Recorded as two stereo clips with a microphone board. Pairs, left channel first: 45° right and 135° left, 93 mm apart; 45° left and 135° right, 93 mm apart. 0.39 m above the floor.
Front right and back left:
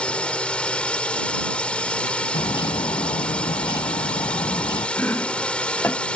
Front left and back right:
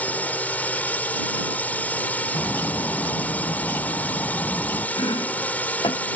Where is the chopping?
20° left.